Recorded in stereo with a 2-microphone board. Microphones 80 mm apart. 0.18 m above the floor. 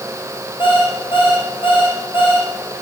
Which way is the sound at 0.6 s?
80° left.